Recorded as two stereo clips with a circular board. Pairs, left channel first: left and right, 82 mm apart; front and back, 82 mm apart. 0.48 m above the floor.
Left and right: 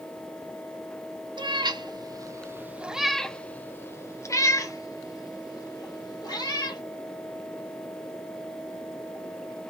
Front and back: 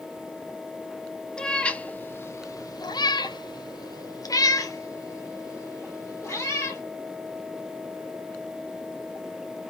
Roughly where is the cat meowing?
Right.